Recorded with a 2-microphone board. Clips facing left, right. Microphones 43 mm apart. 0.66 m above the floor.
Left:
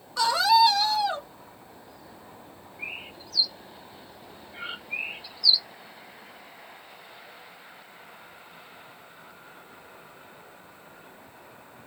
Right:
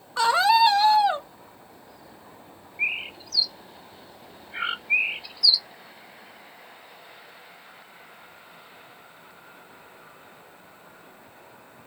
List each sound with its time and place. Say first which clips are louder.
0.2 s a scream: right 1 dB; 30° right (ahead or behind), 1.1 m
2.8 s a bird: right 10 dB; 70° right (ahead or behind), 0.7 m